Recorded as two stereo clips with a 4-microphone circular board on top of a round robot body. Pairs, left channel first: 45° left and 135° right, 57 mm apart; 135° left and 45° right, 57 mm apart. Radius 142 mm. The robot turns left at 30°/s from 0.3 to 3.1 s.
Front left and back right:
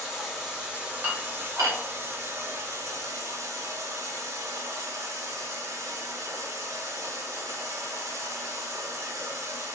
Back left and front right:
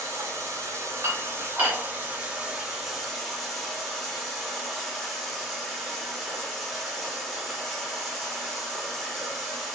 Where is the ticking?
I don't hear ticking.